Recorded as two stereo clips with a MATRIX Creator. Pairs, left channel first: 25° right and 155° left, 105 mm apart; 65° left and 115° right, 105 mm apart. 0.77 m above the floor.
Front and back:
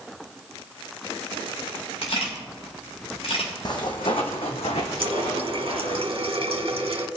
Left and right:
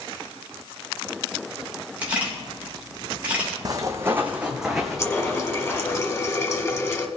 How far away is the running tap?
About 1.5 m.